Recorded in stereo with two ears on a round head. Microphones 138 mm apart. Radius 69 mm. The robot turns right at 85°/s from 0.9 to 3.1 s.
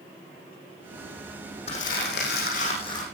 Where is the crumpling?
40° left, 8.5 m; by 3.0 s 160° left, 8.5 m.